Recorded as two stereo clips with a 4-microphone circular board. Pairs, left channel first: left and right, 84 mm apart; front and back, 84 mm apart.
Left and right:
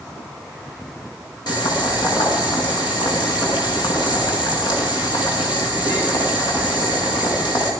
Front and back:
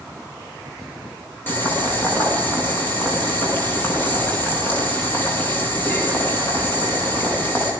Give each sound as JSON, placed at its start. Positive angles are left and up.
{"t": 1.5, "sound": "boiling", "azimuth_deg": 65, "distance_m": 7.0}